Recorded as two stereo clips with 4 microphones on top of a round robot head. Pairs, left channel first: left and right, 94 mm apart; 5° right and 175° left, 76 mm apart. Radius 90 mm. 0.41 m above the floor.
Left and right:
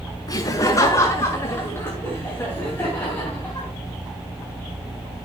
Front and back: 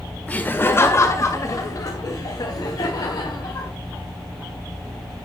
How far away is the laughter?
About 1.6 m.